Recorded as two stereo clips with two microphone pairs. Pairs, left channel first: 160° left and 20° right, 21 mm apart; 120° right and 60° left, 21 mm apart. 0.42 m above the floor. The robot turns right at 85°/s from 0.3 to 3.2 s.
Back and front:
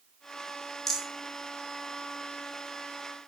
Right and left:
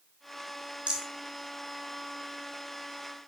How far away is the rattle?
About 4 m.